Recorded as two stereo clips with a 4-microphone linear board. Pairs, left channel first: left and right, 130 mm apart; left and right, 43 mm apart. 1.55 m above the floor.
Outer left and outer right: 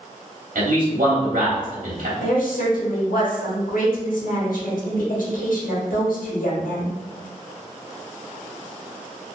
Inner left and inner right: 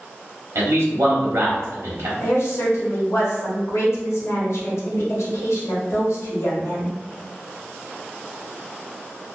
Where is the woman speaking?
80° left, 1.0 m.